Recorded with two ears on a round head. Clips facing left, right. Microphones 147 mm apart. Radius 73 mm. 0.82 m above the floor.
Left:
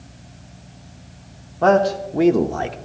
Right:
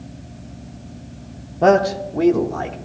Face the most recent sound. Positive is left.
turn(degrees=35)  # may be behind; listen again after turning